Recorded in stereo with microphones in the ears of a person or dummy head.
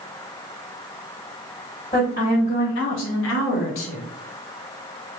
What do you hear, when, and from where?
1.9 s a woman speaking: 20° left (ahead or behind), 1.8 m; by 4.0 s 35° left (ahead or behind), 1.7 m